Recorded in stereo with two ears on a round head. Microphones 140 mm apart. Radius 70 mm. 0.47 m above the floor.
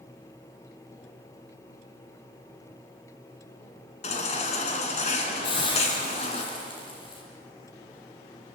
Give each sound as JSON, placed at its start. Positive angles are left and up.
{"t": 4.0, "sound": "a baby crying", "side_deg": 45, "distance_m": 4.0}
{"t": 5.4, "sound": "a hiss", "side_deg": 30, "distance_m": 7.0}